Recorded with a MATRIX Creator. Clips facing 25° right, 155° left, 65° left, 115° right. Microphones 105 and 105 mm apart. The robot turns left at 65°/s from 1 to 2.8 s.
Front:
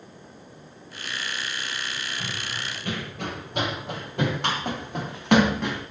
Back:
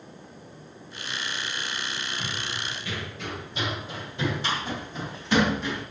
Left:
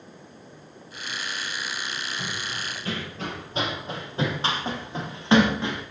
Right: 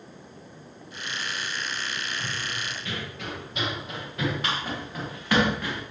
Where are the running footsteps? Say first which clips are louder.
Even, even; 55° left, 9.5 m; by 5.8 s straight ahead, 8 m.